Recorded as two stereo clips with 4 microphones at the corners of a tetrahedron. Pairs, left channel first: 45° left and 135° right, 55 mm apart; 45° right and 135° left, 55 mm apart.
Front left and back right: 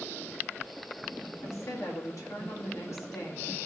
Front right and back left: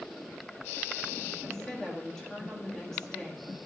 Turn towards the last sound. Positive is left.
turn(degrees=35)